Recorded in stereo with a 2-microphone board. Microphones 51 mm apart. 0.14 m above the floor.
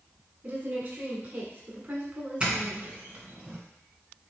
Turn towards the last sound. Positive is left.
turn(degrees=-20)  # may be behind; listen again after turning